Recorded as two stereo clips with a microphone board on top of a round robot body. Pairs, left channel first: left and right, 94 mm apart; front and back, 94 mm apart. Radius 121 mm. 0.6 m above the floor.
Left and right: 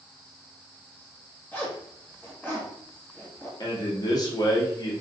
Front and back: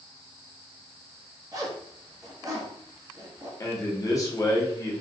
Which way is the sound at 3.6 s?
50° left.